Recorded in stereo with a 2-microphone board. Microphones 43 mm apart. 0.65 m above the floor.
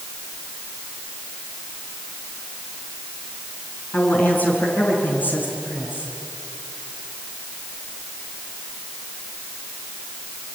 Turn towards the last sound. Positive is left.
turn(degrees=45)  # may be behind; listen again after turning